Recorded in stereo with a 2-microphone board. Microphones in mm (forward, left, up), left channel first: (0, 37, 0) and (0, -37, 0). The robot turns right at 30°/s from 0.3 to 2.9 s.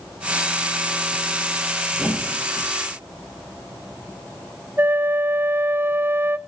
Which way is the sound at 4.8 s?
25° right (ahead or behind).